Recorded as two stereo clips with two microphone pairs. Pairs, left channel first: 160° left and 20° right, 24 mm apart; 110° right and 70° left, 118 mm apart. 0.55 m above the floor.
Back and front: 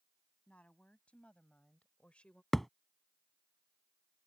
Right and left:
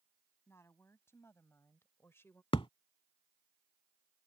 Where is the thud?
125° right.